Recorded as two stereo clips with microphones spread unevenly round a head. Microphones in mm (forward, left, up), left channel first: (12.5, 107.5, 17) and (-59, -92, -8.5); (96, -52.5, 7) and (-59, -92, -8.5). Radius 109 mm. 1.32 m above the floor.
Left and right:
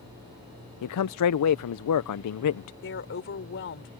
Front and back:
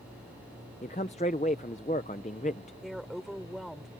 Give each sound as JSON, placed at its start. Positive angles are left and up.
{"t": 0.8, "sound": "a man speaking", "azimuth_deg": 75}
{"t": 2.8, "sound": "a woman speaking", "azimuth_deg": 105}